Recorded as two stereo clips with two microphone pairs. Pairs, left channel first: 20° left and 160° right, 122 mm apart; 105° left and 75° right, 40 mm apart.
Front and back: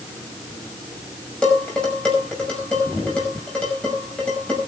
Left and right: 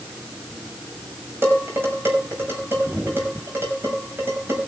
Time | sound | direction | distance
1.4 | dishes clattering | 60° right | 5.5 m